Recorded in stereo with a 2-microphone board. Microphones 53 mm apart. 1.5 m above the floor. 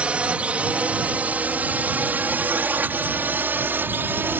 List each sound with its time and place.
0.0 s a drone: 20° right (ahead or behind); by 4.4 s 40° right (ahead or behind)